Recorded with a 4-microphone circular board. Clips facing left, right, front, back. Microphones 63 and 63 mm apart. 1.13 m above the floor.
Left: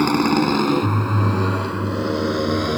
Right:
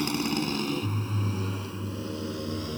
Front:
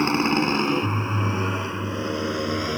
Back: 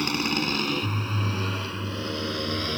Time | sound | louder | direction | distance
0.0 | a motorcycle | left 11 dB, front 6 dB | 60° left | ?